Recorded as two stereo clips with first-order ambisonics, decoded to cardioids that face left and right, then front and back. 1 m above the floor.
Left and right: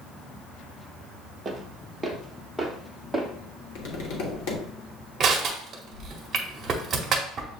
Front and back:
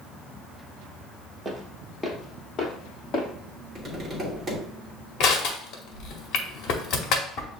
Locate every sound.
1.4 s footsteps: 140° right, 1.0 m; by 3.3 s 5° left, 1.5 m
3.8 s tapping: 105° left, 1.2 m
5.2 s crushing: 30° right, 0.9 m